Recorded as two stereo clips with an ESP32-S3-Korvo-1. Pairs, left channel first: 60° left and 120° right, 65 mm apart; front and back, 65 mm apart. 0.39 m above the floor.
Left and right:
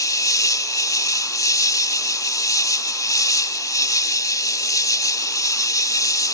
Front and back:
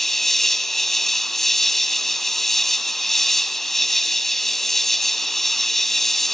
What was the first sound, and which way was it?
An insect, 85° left.